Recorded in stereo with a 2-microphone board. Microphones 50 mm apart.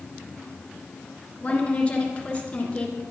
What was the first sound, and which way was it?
A woman speaking, 25° left (ahead or behind).